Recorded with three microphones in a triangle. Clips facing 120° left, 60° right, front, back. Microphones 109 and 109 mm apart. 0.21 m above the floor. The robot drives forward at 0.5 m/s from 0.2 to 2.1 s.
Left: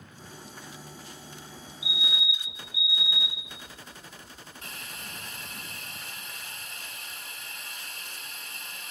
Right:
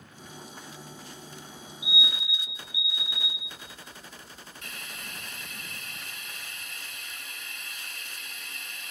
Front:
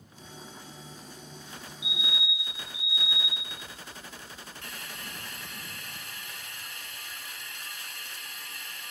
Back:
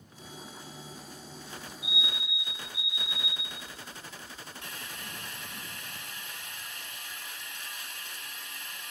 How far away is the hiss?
About 0.8 m.